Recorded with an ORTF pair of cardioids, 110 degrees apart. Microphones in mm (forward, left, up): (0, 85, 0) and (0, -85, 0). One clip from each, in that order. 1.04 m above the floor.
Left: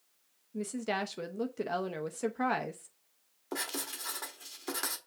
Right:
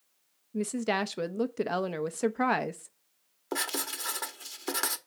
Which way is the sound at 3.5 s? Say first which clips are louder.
Right 5 dB; 30° right.